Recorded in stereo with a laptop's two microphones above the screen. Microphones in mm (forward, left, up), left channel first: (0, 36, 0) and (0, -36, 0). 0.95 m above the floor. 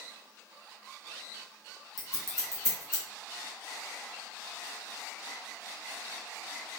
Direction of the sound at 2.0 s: 45° left (ahead or behind).